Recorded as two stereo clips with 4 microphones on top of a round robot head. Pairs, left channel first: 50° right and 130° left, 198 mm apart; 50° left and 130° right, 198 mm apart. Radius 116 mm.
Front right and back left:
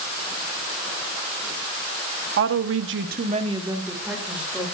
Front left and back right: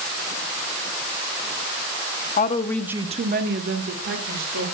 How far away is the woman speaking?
About 1.0 m.